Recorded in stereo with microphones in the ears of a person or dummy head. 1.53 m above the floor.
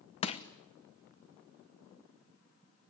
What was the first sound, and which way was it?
Crushing, 35° left (ahead or behind).